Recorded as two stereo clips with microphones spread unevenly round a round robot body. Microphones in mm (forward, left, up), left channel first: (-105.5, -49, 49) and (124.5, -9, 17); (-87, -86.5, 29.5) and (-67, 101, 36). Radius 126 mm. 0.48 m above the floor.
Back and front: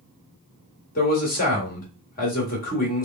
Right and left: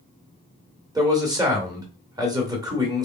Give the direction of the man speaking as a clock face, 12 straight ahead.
7 o'clock.